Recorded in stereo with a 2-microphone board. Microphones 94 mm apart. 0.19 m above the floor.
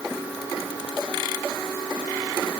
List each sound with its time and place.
Only background noise.